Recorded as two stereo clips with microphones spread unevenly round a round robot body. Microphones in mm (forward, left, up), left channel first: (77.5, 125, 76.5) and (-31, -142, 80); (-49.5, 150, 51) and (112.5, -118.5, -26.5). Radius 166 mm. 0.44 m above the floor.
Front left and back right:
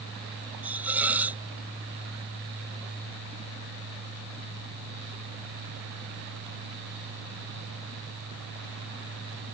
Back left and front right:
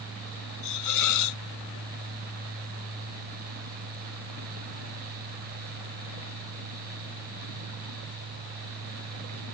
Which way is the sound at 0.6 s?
165° left.